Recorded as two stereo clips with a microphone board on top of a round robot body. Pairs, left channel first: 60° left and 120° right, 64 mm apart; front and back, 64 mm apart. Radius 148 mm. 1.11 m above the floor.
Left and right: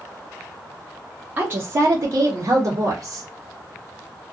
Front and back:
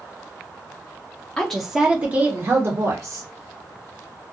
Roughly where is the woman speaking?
Right.